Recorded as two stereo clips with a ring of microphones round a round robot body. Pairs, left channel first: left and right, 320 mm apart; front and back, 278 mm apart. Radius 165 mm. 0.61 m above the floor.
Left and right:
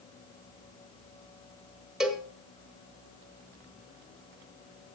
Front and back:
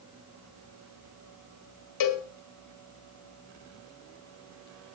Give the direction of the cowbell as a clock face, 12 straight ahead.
12 o'clock.